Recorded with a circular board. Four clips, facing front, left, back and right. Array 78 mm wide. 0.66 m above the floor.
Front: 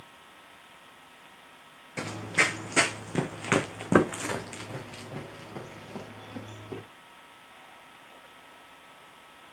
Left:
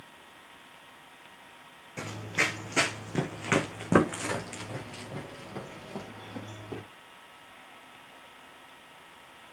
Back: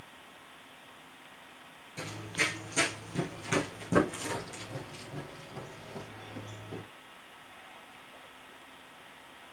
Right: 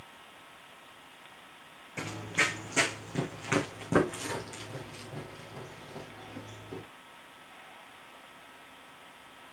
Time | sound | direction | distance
2.0 | running footsteps | 5° right | 1.2 m